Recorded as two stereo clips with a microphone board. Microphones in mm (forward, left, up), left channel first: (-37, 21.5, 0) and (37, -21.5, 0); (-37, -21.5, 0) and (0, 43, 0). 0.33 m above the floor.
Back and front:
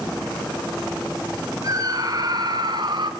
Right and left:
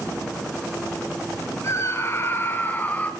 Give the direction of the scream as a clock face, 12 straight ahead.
2 o'clock.